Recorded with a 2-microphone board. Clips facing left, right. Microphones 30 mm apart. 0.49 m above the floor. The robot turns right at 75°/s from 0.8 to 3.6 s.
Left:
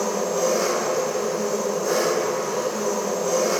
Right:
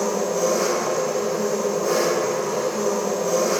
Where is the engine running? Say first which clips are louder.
Right 1 dB; 160° left, 0.8 m; by 3.6 s 10° left, 0.8 m.